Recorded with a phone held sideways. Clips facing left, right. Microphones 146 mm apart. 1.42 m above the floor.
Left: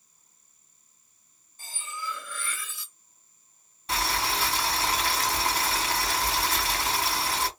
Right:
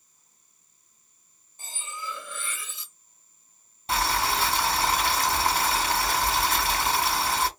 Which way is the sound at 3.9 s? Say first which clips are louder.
Right 3 dB; 30° right (ahead or behind).